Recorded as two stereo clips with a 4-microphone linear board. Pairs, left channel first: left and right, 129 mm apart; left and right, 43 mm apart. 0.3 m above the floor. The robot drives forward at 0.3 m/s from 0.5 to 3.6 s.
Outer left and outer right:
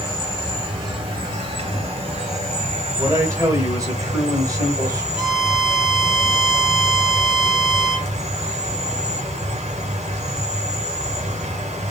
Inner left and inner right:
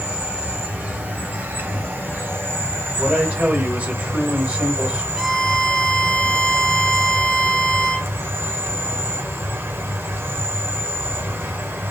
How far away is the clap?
No clap in this recording.